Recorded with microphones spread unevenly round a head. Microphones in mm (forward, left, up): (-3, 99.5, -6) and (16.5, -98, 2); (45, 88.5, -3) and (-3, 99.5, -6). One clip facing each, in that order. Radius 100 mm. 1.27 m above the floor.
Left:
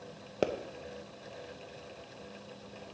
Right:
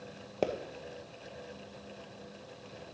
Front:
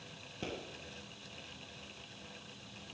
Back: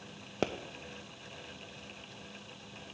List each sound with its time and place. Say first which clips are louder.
0.4 s a pop: left 1 dB, back 9 dB; 175° left, 0.6 m